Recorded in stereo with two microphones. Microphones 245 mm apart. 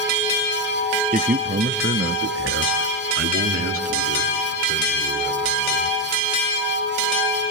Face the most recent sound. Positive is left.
turn(degrees=-70)  # may be behind; listen again after turning